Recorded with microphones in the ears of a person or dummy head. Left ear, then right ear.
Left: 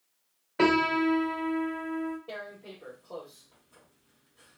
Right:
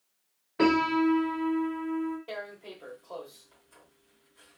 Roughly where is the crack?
I don't hear a crack.